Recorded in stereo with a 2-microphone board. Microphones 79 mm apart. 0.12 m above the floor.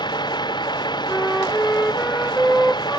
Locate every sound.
0.0 s a vehicle: 65° left (ahead or behind)
1.1 s a flute: 5° left (ahead or behind)